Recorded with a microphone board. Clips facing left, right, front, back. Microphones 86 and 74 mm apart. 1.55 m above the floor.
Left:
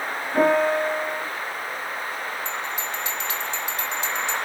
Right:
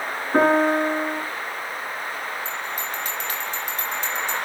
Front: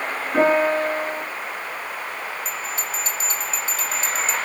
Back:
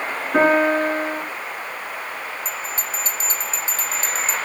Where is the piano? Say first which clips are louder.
Right 2 dB, back 2 dB; 120° right, 6 m.